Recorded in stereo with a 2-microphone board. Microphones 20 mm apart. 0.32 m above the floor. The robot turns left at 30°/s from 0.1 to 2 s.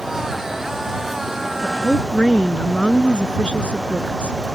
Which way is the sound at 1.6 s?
55° left (ahead or behind).